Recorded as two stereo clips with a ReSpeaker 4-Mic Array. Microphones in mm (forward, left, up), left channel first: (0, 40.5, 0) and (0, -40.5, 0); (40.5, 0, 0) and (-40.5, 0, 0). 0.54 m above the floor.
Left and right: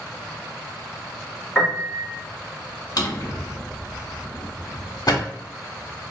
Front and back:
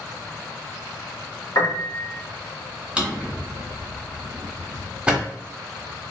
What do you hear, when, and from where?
1.6 s a piano: straight ahead, 1.5 m
3.0 s a drawer: 100° left, 0.8 m